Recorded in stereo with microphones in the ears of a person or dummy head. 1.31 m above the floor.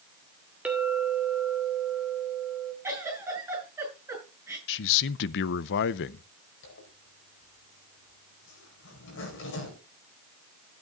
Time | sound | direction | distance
0.7 | a clink | 10° right (ahead or behind) | 2.5 m
2.8 | a giggle | 15° right (ahead or behind) | 8.5 m
4.7 | a man speaking | 60° left (ahead or behind) | 0.6 m
6.6 | a zipper | 75° left (ahead or behind) | 4.5 m